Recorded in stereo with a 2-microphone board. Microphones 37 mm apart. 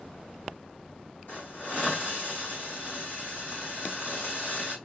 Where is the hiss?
60° left (ahead or behind), 2.5 m.